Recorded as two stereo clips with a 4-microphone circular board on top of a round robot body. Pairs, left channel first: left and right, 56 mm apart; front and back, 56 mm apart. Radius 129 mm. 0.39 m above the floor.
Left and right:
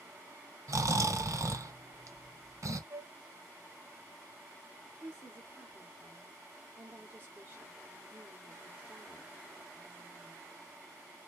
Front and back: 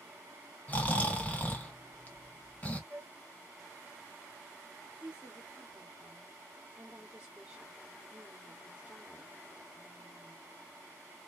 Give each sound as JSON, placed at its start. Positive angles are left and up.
{"t": 0.7, "sound": "snoring", "azimuth_deg": -65, "distance_m": 1.3}
{"t": 2.9, "sound": "a flute", "azimuth_deg": -80, "distance_m": 1.7}
{"t": 5.0, "sound": "a woman speaking", "azimuth_deg": -120, "distance_m": 1.6}